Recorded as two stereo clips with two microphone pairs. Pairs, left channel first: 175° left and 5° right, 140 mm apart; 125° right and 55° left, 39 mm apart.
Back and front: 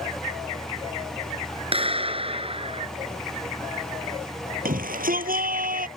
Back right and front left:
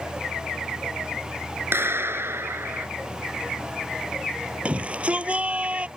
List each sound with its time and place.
1.7 s a clap: 40° left
4.7 s a shout: 5° right